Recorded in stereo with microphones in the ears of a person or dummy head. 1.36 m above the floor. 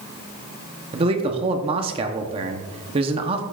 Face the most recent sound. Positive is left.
turn(degrees=-30)  # may be behind; listen again after turning